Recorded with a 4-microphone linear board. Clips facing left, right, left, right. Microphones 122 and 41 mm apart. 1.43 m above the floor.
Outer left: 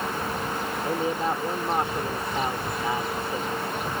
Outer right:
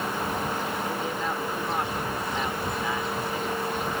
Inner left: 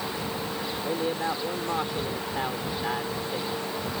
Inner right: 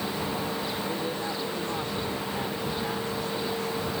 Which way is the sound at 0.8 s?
30° left (ahead or behind).